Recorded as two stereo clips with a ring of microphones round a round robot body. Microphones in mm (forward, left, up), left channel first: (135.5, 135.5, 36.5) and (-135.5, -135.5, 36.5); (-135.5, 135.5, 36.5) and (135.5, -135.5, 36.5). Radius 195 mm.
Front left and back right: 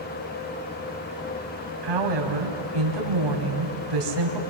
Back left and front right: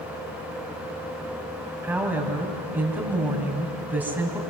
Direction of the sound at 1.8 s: 130° right.